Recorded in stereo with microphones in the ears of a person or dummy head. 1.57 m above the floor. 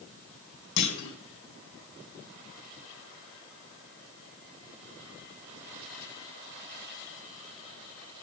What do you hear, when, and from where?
0.8 s a clunk: 55° left (ahead or behind), 1.2 m